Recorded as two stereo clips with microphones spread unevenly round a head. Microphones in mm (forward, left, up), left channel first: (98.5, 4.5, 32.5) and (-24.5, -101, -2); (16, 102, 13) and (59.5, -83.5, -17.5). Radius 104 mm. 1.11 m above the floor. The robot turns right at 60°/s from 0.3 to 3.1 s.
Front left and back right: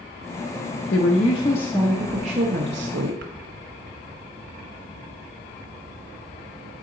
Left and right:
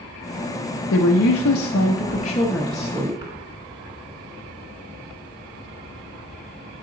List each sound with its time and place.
0.9 s a woman speaking: 80° left, 0.8 m; by 3.3 s 145° right, 0.8 m